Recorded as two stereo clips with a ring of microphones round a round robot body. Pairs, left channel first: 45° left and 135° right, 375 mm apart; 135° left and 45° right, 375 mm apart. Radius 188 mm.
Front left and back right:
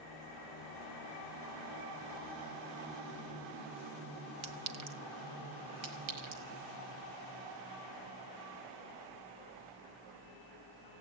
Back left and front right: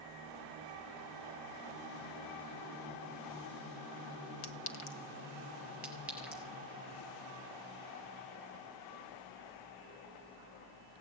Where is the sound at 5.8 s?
130° right, 5.5 m.